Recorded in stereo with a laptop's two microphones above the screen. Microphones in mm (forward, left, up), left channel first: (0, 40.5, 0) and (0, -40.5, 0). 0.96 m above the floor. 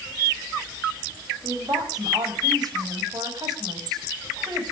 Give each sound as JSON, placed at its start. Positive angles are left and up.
{"t": 1.4, "sound": "a woman speaking", "side_deg": -55, "distance_m": 5.0}